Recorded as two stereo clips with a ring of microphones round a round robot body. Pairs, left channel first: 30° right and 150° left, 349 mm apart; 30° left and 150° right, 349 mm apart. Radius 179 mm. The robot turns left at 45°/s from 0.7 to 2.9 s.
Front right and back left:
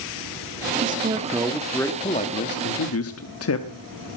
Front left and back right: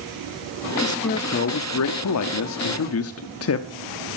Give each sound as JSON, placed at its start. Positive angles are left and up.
{"t": 0.8, "sound": "a man speaking", "azimuth_deg": 95, "distance_m": 1.2}